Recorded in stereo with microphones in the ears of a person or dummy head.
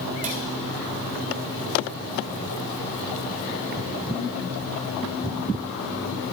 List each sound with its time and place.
0.2 s a cupboard door: 35° right (ahead or behind), 1.7 m